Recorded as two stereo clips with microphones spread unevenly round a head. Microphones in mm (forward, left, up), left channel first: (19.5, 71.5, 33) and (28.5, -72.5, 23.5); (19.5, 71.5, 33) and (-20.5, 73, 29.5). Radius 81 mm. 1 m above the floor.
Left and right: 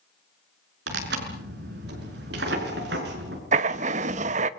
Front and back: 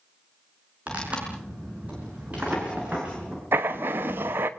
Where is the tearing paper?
105° right, 5.5 m.